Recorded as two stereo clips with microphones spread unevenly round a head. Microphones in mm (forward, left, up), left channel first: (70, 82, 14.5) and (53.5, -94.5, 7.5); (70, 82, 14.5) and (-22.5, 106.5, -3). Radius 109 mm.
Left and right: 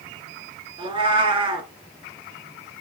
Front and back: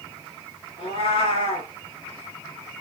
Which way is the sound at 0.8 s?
35° right.